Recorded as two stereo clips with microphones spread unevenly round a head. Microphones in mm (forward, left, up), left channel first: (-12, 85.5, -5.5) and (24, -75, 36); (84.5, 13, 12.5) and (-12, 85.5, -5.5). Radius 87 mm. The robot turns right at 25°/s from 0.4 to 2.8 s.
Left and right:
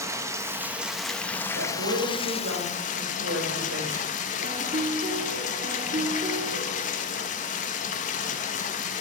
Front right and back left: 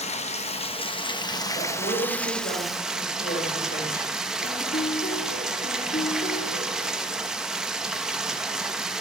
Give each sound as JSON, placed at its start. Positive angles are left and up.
{"t": 0.0, "sound": "running water", "azimuth_deg": 0, "distance_m": 1.3}
{"t": 1.5, "sound": "a woman speaking", "azimuth_deg": -95, "distance_m": 7.0}
{"t": 4.4, "sound": "a piano", "azimuth_deg": -40, "distance_m": 2.0}